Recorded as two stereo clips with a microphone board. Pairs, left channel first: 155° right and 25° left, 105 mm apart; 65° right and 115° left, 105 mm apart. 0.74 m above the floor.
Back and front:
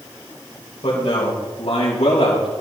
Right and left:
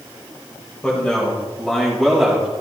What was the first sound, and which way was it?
A man speaking, 150° right.